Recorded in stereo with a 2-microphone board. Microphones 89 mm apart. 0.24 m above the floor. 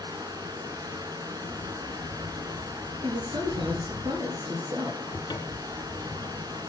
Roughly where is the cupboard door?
Left.